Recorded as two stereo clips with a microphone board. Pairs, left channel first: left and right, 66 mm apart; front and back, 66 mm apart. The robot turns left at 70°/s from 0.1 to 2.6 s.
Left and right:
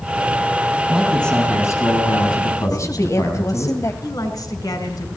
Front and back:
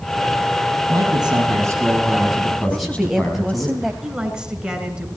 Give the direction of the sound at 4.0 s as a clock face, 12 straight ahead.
9 o'clock.